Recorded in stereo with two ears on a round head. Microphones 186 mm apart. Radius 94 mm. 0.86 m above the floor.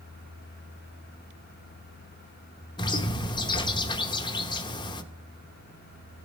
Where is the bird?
20° left (ahead or behind), 0.9 m.